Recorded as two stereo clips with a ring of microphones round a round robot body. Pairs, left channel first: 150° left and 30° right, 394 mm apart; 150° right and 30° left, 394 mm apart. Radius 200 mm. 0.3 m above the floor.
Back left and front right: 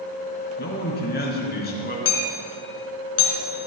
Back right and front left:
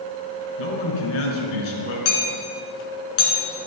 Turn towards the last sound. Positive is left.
turn(degrees=-155)